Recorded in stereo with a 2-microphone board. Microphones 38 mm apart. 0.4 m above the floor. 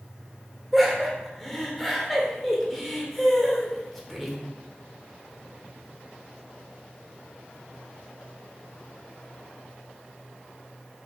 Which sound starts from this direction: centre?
Laughter, at 0.7 s.